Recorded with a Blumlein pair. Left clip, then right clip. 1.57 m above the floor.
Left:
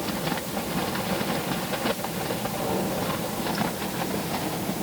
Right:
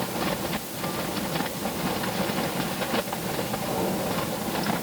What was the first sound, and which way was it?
Only background noise.